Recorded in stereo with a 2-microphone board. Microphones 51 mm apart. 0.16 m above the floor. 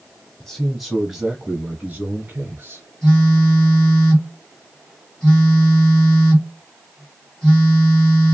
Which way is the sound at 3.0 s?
10° left (ahead or behind).